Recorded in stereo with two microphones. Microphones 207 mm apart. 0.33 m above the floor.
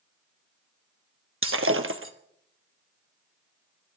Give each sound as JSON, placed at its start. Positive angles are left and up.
{"t": 1.4, "sound": "breaking glass", "side_deg": -80, "distance_m": 1.1}